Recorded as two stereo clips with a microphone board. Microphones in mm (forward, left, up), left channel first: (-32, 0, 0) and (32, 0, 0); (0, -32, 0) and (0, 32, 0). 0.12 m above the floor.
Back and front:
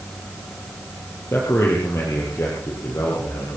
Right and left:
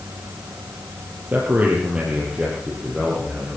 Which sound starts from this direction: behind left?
A man speaking, at 1.3 s.